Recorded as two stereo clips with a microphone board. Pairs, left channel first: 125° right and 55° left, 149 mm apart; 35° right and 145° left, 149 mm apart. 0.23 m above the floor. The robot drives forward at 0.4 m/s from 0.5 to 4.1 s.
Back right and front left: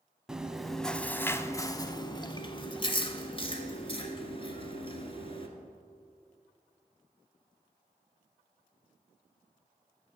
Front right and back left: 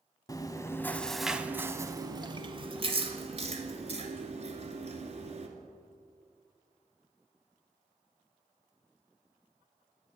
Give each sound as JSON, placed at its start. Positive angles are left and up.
{"t": 0.3, "sound": "chewing", "azimuth_deg": -25, "distance_m": 0.5}